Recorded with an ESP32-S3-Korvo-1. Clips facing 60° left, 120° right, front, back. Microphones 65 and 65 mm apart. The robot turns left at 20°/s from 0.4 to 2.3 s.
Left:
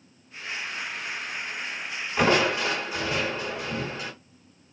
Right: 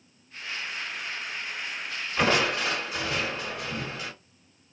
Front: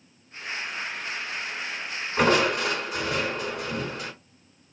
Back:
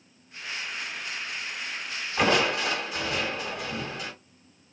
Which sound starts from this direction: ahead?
Crushing, at 2.2 s.